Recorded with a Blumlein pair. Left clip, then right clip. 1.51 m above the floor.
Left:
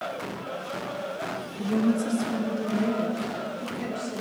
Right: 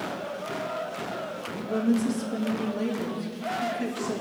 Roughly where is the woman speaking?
Ahead.